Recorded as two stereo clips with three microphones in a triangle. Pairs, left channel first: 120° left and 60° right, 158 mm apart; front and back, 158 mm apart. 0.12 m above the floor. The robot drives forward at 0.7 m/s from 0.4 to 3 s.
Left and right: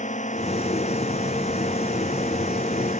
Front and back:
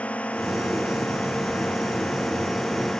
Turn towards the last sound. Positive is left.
turn(degrees=85)